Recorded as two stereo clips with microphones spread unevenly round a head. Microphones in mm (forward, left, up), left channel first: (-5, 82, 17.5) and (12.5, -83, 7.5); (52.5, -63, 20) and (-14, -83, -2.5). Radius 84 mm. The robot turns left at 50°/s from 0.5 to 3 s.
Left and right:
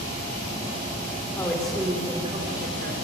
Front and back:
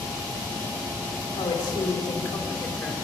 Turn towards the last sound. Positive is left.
turn(degrees=-60)